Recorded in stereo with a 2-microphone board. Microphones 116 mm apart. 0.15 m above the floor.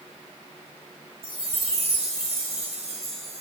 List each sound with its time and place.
1.2 s a chime: 55° right (ahead or behind), 4 m